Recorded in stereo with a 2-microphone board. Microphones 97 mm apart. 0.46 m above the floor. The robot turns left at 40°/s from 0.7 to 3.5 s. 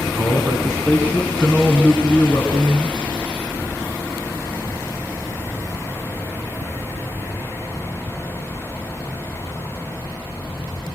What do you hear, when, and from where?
0.2 s a man speaking: 145° right, 5 m; by 3.1 s 120° left, 5 m